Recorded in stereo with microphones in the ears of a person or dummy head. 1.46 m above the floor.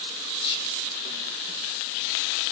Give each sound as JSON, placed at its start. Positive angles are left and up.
{"t": 0.4, "sound": "whispering", "side_deg": 25, "distance_m": 2.0}